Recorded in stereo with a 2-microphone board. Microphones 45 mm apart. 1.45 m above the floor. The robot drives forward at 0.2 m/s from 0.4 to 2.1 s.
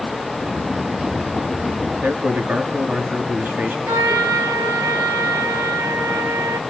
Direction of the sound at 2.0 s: 45° right (ahead or behind).